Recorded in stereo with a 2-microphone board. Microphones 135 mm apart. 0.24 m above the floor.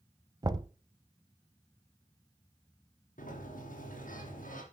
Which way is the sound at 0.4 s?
30° right (ahead or behind).